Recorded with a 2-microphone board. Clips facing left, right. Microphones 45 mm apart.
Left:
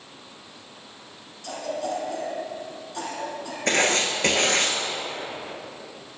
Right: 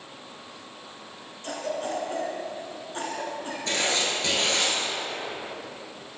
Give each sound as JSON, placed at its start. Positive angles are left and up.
{"t": 1.4, "sound": "a cough", "side_deg": -35, "distance_m": 1.5}
{"t": 3.7, "sound": "writing", "side_deg": 55, "distance_m": 0.9}